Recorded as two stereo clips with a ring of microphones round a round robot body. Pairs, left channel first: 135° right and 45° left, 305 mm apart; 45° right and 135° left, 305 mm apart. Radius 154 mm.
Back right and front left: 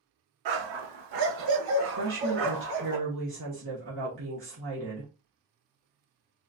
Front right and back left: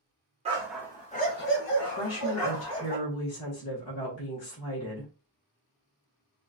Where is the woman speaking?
5° right, 1.7 m.